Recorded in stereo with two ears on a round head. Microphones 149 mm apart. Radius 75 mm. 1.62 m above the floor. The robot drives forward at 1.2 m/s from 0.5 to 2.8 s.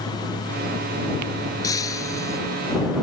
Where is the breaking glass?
20° left (ahead or behind).